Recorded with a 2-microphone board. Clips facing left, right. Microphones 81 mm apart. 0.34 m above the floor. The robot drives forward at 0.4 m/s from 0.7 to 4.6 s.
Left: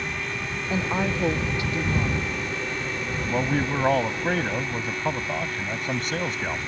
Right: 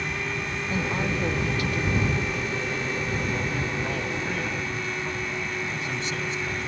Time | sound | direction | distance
0.7 | a woman speaking | 25° left (ahead or behind) | ?
3.3 | a man speaking | 60° left (ahead or behind) | ?